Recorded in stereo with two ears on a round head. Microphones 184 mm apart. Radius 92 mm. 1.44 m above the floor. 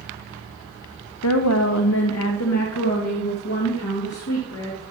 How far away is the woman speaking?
About 0.6 m.